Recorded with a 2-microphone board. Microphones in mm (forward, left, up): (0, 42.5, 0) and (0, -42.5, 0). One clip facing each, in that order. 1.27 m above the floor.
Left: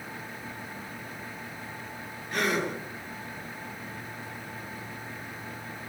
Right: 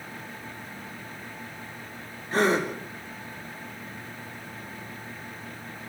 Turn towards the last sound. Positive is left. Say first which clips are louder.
# right 5 dB
turn(degrees=-35)  # may be behind; listen again after turning